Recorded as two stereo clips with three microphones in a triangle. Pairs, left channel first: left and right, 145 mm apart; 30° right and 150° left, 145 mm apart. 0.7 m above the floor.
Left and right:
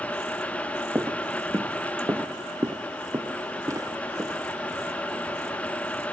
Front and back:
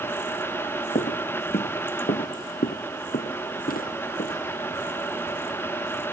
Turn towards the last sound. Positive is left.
turn(degrees=-20)